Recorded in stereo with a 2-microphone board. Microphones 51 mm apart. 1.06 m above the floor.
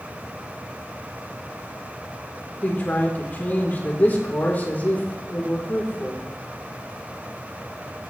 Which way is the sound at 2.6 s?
40° left (ahead or behind).